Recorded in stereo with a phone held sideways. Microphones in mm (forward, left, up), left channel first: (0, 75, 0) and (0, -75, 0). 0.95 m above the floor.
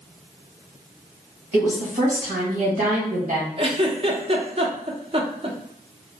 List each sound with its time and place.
1.5 s a woman speaking: 60° right (ahead or behind), 1.3 m
3.6 s a giggle: 40° right (ahead or behind), 0.5 m